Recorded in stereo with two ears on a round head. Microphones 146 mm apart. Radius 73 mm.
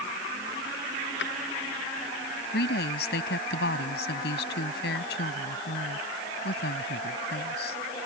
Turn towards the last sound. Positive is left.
turn(degrees=70)  # may be behind; listen again after turning